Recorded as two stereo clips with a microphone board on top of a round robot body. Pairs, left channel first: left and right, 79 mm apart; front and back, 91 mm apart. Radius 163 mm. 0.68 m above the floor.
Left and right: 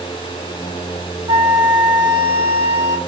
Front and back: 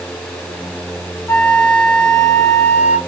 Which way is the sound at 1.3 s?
65° right.